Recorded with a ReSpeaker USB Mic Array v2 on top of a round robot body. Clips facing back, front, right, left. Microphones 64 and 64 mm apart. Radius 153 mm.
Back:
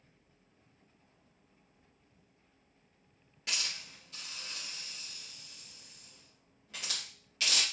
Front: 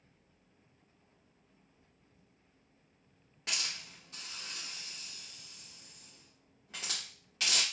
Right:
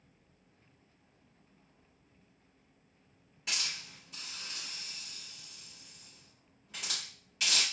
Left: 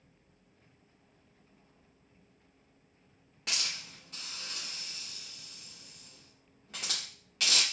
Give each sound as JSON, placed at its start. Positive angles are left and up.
{"t": 3.5, "sound": "a hiss", "azimuth_deg": 60, "distance_m": 0.5}